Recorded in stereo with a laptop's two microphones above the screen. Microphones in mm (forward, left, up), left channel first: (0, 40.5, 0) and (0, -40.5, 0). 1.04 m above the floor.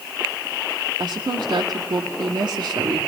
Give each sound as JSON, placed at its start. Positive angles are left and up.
{"t": 1.0, "sound": "a woman speaking", "side_deg": -65, "distance_m": 2.0}